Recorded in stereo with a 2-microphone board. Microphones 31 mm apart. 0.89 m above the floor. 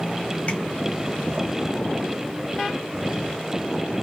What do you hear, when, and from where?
0.5 s tapping: 45° left (ahead or behind), 1.8 m